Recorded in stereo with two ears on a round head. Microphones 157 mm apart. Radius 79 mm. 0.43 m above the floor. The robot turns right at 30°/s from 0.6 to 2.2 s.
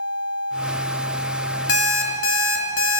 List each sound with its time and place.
1.7 s an alarm clock: 70° left (ahead or behind), 1.3 m; by 3.0 s 80° left, 1.3 m